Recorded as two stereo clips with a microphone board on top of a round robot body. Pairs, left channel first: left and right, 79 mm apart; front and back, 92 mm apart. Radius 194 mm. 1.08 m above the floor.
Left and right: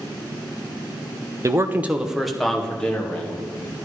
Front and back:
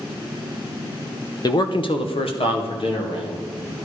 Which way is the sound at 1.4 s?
45° right.